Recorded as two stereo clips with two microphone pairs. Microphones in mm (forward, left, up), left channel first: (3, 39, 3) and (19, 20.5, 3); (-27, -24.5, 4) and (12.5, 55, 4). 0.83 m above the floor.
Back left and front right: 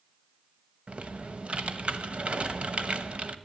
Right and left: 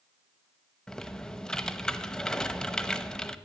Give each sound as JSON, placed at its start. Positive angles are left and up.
{"t": 0.9, "sound": "typing on a keyboard", "azimuth_deg": -35, "distance_m": 0.9}